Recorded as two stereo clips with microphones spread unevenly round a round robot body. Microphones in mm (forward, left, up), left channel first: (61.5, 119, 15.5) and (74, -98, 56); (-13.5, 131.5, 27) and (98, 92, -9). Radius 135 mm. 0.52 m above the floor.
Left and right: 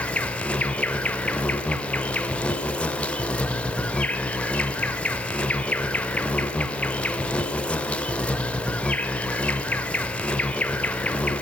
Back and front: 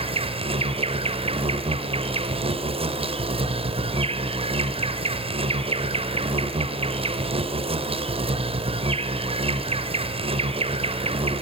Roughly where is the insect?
Ahead.